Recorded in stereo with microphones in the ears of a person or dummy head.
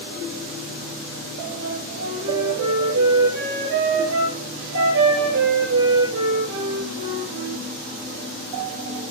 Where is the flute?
65° right (ahead or behind), 8.5 m.